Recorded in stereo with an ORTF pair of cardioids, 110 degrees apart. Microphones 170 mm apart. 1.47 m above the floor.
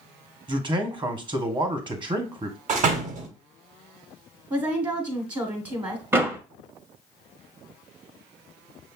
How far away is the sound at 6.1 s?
About 0.6 m.